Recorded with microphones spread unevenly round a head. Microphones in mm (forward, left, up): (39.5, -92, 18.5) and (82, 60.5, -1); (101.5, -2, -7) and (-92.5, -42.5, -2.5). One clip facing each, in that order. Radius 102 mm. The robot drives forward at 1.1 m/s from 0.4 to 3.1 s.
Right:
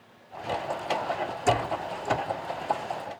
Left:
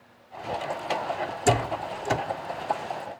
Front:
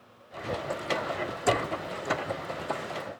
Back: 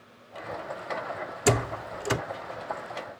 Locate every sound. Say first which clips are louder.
1.5 s a door slam: left 2 dB, back 3 dB; 140° left; by 2.2 s 150° left